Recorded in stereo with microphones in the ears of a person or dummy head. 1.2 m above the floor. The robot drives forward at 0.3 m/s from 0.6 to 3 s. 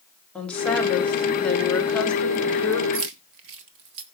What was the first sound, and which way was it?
A woman speaking, 5° left (ahead or behind).